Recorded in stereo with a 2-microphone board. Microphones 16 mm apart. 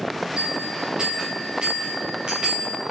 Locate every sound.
0.4 s a bell: 70° right (ahead or behind), 7.5 m